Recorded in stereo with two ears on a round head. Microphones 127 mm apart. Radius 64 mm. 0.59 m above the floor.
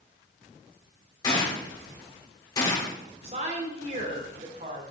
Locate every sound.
1.2 s a gunshot: 30° left (ahead or behind), 1.9 m
3.2 s a woman speaking: 45° right (ahead or behind), 1.6 m